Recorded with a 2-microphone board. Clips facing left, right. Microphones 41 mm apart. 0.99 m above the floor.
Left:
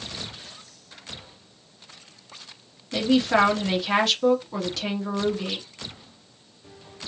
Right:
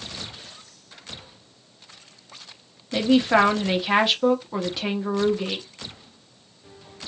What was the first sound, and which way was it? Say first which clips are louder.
A man speaking: right 2 dB; 15° right (ahead or behind).